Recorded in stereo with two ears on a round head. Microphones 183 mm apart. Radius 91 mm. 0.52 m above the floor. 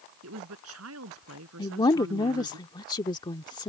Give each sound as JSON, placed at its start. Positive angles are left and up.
{"t": 0.2, "sound": "a woman speaking", "side_deg": -80}
{"t": 1.6, "sound": "a woman speaking", "side_deg": 20}